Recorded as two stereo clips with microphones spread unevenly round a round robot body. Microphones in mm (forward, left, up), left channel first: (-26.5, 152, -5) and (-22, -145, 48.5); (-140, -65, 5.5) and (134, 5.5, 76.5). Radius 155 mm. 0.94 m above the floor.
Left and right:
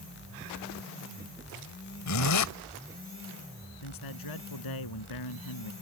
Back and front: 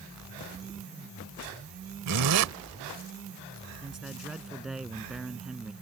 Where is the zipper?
55° left.